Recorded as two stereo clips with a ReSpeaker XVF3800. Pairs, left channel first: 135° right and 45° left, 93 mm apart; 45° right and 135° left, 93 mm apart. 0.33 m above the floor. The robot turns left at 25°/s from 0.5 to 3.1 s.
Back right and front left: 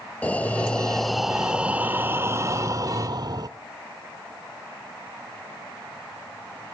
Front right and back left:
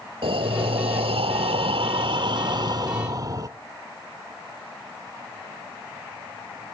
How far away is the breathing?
About 0.7 m.